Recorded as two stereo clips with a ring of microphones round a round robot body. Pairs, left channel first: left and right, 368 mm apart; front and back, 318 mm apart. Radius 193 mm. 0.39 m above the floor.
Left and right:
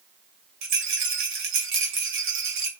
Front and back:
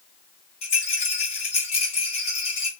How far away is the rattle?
About 1.6 m.